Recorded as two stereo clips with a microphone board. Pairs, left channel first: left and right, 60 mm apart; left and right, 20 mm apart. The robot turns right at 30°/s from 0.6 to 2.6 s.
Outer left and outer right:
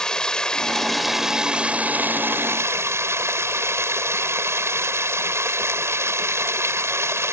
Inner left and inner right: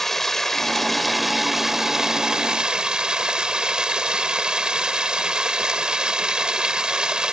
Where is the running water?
170° left; by 7.3 s 130° right.